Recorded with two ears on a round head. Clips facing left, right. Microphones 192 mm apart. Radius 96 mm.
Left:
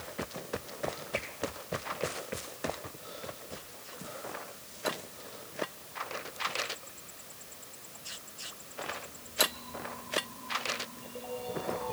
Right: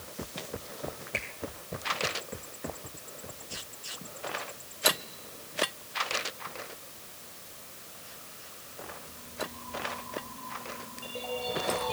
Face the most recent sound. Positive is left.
turn(degrees=-70)  # may be behind; listen again after turning